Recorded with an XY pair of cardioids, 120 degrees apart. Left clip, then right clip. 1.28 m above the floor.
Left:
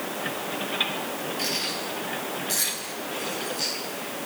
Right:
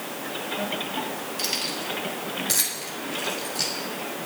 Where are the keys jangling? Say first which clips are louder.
Right 1 dB; 40° right, 7.5 m; by 3.7 s 50° right, 6 m.